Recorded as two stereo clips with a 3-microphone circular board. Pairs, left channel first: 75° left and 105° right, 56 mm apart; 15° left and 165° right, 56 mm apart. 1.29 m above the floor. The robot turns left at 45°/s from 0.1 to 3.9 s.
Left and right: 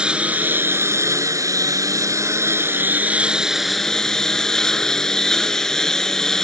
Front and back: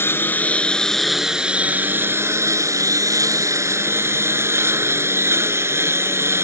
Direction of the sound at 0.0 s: 30° right.